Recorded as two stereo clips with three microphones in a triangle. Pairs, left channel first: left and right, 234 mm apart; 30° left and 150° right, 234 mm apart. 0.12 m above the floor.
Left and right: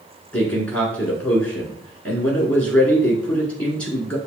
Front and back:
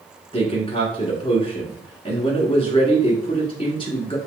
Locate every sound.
0.3 s a man speaking: 15° left, 1.4 m